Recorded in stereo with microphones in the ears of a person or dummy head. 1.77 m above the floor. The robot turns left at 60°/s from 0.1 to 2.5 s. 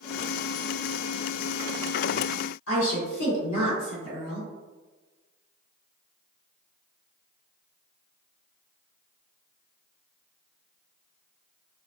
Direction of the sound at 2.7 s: 75° left (ahead or behind).